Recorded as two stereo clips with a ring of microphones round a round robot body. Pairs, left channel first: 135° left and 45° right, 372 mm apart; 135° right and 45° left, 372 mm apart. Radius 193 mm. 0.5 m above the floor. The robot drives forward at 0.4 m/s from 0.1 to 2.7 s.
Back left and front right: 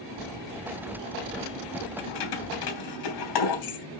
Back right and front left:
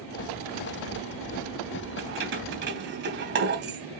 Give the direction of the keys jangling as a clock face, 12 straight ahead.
9 o'clock.